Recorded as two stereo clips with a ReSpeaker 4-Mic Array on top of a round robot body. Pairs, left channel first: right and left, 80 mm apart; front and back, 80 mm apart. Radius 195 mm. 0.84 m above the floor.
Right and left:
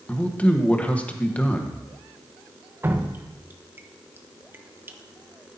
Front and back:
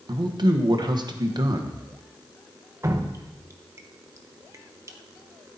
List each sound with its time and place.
0.1 s a man speaking: 165° right, 1.3 m
2.8 s dripping: 145° left, 1.2 m